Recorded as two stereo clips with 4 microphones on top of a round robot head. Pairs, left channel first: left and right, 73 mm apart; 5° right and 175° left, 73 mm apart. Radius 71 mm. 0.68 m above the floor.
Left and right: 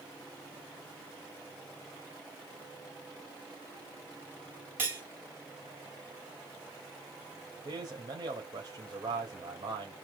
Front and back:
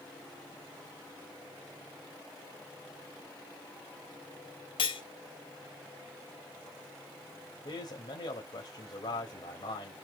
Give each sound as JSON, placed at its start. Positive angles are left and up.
{"t": 4.8, "sound": "cutlery clinking", "azimuth_deg": -20, "distance_m": 2.0}
{"t": 7.7, "sound": "a man speaking", "azimuth_deg": -45, "distance_m": 3.5}